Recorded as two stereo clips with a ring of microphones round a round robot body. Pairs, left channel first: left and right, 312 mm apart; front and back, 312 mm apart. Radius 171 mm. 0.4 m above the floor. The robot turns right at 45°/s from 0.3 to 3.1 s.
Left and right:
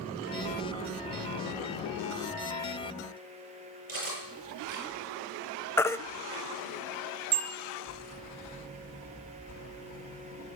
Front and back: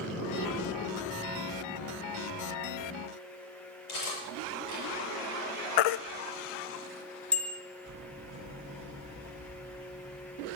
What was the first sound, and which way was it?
Cutlery clinking, 25° right.